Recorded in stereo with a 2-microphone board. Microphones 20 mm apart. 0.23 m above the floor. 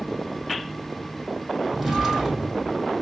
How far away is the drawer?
About 3.5 m.